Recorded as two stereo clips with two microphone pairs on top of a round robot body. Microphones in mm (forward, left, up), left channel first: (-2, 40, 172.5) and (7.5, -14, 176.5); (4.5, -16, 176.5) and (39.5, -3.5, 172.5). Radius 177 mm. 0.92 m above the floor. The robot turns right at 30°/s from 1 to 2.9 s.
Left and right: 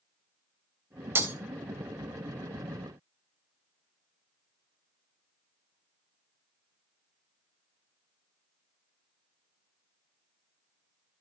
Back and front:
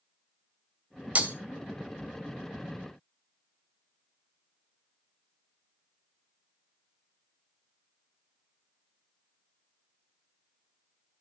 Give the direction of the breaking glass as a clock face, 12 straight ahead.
1 o'clock.